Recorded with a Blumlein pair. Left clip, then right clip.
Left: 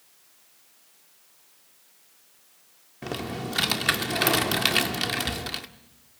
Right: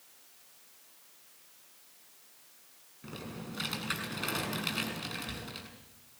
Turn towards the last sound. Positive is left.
turn(degrees=45)